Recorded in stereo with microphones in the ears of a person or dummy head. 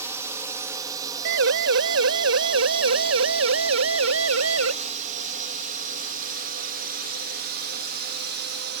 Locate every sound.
0.0 s a drone: 15° right (ahead or behind); by 8.8 s 60° right (ahead or behind)
1.2 s a siren: 70° right (ahead or behind); by 4.7 s 90° right